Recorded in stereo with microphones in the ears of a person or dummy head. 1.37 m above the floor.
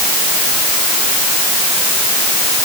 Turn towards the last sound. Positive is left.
No sound to turn to.